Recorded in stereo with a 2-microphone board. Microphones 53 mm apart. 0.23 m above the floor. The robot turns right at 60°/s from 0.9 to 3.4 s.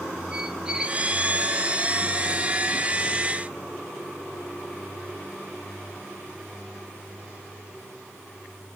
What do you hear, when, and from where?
0.3 s a squeak: 15° right (ahead or behind), 2.5 m; by 1.0 s 10° right (ahead or behind), 2.5 m